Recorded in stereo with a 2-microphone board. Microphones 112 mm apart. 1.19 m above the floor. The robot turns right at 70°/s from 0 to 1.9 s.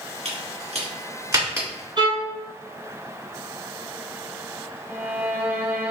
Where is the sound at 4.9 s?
15° right (ahead or behind), 0.6 m.